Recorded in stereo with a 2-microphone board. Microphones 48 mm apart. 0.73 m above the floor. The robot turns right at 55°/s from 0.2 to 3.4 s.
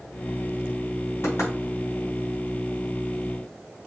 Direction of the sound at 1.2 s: 70° left (ahead or behind).